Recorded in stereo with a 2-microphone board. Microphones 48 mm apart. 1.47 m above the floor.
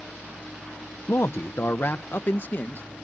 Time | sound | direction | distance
1.1 | a man speaking | 60° left (ahead or behind) | ?